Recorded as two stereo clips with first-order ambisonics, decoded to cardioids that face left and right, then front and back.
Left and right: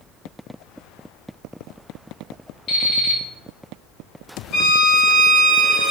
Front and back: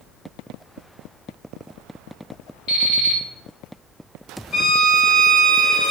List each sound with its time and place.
2.7 s an alarm clock: 45° left, 1.7 m
4.5 s a violin: 65° left, 1.3 m